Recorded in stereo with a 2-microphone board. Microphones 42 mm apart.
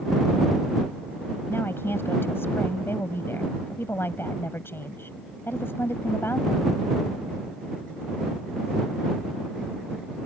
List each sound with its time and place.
1.5 s a woman speaking: 65° left (ahead or behind)